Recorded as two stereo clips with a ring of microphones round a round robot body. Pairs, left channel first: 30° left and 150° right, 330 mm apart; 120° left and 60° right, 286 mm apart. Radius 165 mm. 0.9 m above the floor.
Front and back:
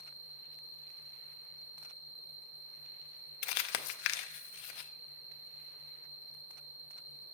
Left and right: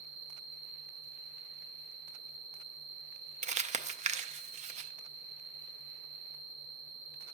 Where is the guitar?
I don't hear a guitar.